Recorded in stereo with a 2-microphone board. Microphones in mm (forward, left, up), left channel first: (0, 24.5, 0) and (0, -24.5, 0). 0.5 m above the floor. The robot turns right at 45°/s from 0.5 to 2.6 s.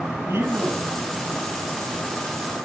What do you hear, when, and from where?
0.3 s a man speaking: 75° right (ahead or behind), 6.5 m; by 0.9 s 80° right, 6.5 m